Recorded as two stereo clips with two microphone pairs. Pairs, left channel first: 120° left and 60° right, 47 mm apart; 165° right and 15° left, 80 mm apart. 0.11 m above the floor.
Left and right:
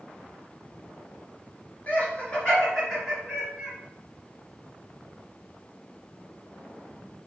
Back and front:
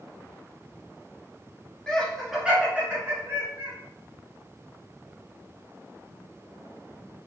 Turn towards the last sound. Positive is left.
turn(degrees=10)